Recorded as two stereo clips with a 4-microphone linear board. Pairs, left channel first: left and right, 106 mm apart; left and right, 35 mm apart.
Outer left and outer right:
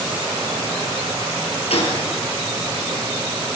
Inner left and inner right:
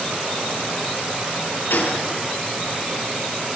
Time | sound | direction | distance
1.7 | a gunshot | 80° left | 6 m